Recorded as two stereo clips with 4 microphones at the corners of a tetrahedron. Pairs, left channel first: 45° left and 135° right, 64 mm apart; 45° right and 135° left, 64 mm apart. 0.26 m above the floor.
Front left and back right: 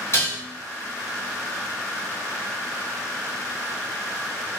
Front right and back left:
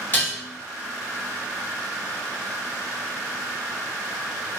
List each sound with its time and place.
0.1 s dishes clattering: 10° left, 1.9 m